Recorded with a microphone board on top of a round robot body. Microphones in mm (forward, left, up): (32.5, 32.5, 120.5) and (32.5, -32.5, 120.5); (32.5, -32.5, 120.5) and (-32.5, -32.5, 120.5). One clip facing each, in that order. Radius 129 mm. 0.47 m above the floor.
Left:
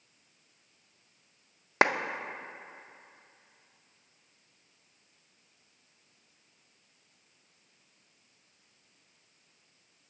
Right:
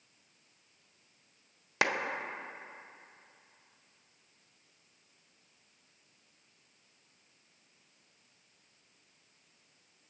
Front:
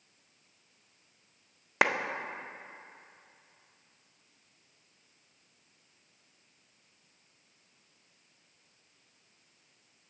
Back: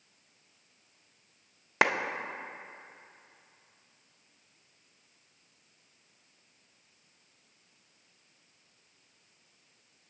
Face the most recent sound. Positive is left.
turn(degrees=90)